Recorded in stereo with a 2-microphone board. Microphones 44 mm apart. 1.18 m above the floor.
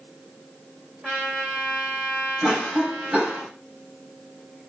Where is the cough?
20° right (ahead or behind), 3.5 m.